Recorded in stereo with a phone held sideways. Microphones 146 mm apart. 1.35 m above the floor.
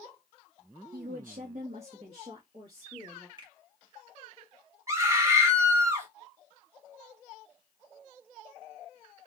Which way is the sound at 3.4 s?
30° right (ahead or behind).